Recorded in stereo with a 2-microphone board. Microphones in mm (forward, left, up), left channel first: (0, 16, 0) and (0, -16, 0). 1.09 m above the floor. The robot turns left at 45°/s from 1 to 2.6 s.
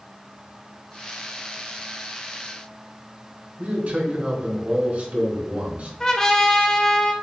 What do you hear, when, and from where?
3.6 s a man speaking: 60° right (ahead or behind), 2.0 m
6.0 s a trumpet: 20° left (ahead or behind), 0.5 m